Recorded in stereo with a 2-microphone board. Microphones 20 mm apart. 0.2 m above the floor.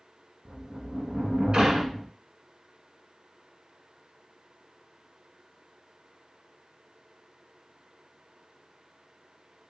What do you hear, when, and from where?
0.5 s a sliding door: 55° right (ahead or behind), 1.0 m